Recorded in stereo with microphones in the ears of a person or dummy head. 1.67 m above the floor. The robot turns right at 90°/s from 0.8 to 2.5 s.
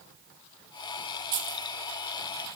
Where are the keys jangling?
20° right (ahead or behind), 1.0 m; by 1.7 s 5° left (ahead or behind), 1.0 m.